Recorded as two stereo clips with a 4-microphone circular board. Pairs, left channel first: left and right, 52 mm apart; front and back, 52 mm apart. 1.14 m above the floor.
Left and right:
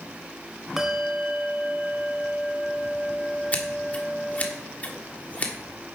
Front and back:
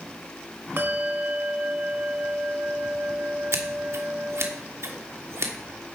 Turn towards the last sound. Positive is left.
turn(degrees=150)